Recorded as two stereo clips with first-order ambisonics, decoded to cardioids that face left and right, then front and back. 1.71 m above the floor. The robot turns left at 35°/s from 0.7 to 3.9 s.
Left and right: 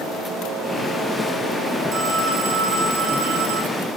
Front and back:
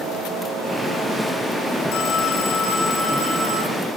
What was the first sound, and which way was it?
A phone ringing, 30° right.